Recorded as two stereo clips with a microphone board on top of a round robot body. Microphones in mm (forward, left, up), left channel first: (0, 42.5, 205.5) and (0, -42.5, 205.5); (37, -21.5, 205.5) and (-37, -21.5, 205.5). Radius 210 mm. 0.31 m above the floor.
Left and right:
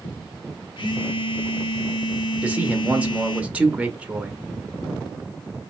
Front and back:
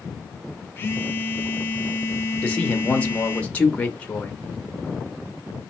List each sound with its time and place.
0.8 s a phone buzzing: 60° left, 0.6 m
2.4 s a man speaking: 35° right, 0.9 m